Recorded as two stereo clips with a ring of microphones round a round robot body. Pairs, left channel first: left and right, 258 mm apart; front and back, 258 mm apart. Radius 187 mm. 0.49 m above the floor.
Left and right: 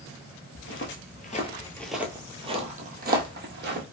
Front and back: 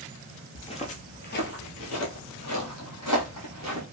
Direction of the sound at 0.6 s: 70° left.